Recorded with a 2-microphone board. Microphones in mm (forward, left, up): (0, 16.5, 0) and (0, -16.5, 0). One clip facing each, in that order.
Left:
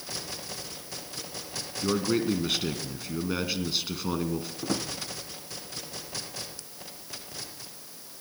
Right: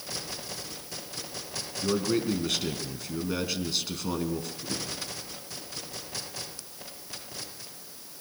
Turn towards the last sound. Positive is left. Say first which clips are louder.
# left 4 dB
turn(degrees=85)